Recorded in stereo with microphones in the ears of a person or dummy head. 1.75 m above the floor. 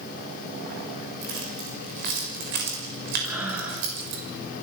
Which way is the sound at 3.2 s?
10° right (ahead or behind).